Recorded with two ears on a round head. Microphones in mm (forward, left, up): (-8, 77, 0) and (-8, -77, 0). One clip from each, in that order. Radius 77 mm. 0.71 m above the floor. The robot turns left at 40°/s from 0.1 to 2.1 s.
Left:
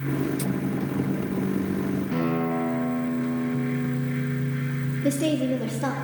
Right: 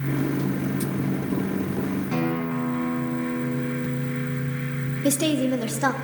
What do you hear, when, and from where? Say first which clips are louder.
2.1 s a guitar: left 1 dB; 75° right (ahead or behind), 1.7 m
5.0 s a woman speaking: right 2 dB; 50° right (ahead or behind), 0.6 m